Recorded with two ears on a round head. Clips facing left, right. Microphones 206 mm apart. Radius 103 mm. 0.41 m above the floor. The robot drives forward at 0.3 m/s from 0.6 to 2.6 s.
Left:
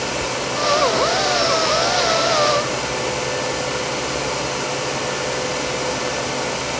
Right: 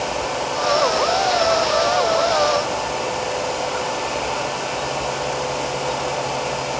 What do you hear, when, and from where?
Only background noise.